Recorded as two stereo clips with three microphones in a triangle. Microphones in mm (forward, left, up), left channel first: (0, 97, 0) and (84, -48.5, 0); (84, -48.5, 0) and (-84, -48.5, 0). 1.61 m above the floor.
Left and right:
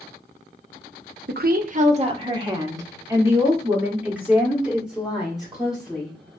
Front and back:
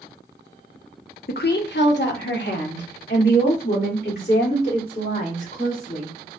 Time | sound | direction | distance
1.3 | a woman speaking | 35° right | 0.6 m